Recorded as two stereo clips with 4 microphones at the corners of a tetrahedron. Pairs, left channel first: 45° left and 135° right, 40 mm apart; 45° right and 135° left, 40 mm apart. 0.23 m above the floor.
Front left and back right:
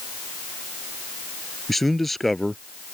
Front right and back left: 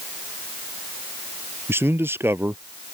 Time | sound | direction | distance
1.7 | a man speaking | 135° left | ?